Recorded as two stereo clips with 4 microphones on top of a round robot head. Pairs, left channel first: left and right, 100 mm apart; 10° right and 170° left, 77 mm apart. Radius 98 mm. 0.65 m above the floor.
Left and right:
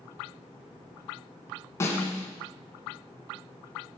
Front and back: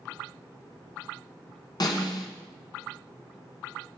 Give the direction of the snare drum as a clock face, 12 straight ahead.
11 o'clock.